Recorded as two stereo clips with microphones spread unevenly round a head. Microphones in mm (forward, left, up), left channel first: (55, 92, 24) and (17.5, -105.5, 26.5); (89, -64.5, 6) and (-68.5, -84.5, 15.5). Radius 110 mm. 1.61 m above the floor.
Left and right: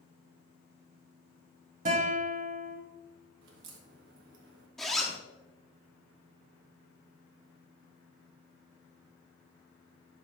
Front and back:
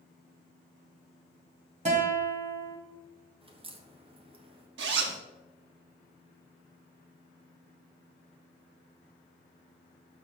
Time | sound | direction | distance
1.9 | a guitar | 150° right | 2 m
3.4 | a crack | 125° right | 1.2 m
4.8 | a zipper | 170° left | 0.9 m